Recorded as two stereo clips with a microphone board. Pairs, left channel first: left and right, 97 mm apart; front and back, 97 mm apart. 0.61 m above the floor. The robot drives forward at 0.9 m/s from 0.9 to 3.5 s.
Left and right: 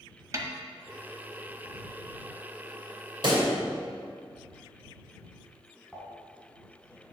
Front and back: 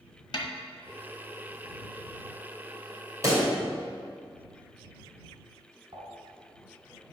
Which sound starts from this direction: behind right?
A pop, at 3.2 s.